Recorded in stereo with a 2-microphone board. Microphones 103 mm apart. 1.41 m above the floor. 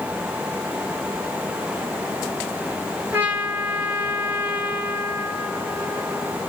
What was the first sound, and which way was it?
A trumpet, 20° right (ahead or behind).